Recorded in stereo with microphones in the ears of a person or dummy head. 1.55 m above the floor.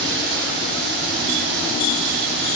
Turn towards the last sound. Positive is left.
turn(degrees=-60)  # may be behind; listen again after turning